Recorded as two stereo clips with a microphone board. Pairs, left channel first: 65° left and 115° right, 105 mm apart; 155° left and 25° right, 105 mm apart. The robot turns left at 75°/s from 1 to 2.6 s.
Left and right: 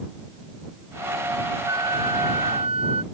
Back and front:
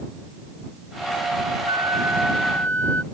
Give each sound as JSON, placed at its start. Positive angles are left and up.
{"t": 1.7, "sound": "a flute", "azimuth_deg": -60}